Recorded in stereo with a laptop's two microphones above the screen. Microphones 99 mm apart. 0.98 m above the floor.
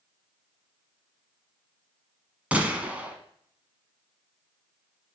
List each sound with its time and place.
2.5 s a gunshot: 15° right (ahead or behind), 1.2 m